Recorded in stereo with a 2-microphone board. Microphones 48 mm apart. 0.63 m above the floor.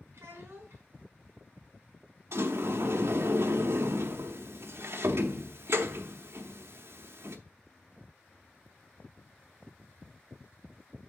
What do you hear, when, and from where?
0.1 s a child speaking: 60° right (ahead or behind), 3.5 m
2.3 s a sliding door: 65° right (ahead or behind), 0.8 m